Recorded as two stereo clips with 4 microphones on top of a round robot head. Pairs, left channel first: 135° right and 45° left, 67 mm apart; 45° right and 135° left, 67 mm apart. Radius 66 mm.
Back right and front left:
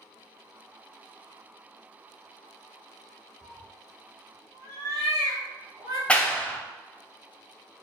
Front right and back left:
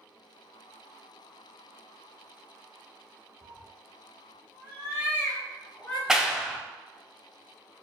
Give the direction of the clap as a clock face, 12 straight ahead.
5 o'clock.